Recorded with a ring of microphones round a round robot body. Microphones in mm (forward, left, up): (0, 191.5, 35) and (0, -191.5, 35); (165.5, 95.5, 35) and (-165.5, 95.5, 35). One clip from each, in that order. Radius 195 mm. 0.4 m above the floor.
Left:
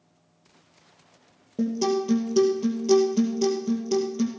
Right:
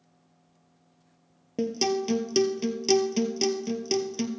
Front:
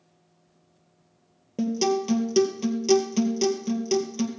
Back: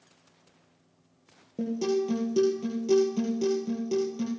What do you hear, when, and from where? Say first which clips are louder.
1.6 s a guitar: left 1 dB, front 3 dB; 55° right, 1.9 m